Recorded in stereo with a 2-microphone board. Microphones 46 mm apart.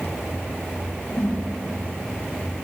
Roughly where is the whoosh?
Left.